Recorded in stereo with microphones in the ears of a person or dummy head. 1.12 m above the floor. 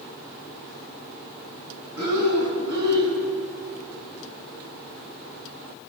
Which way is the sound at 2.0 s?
55° right (ahead or behind).